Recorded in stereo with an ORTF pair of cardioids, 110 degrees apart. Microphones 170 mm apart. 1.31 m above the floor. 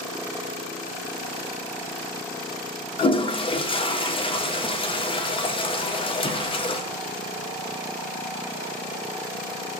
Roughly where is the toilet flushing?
Ahead left.